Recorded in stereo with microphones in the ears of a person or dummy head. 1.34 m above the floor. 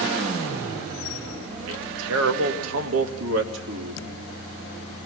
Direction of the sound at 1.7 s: 75° right (ahead or behind).